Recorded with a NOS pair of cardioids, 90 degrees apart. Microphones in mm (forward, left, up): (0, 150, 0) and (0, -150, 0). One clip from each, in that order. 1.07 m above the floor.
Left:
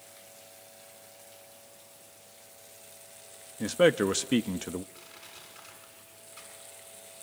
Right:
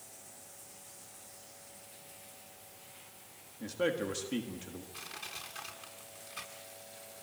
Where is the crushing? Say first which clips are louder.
Right 5 dB; 45° right, 8 m.